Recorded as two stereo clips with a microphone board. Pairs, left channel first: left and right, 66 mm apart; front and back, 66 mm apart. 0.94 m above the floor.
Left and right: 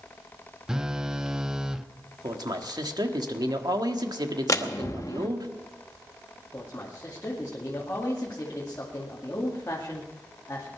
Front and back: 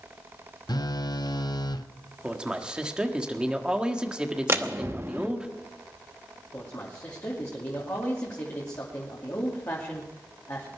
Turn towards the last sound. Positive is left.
turn(degrees=40)